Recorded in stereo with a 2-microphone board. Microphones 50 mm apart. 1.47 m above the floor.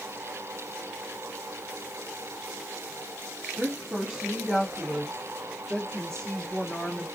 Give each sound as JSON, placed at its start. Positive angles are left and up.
{"t": 3.5, "sound": "a woman speaking", "side_deg": -40, "distance_m": 1.0}